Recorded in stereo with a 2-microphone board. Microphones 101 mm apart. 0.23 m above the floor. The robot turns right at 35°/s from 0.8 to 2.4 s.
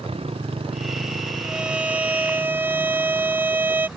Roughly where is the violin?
Centre.